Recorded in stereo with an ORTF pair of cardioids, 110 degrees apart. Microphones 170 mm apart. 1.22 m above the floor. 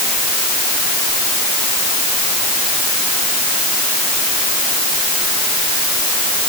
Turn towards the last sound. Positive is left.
No sound to turn to.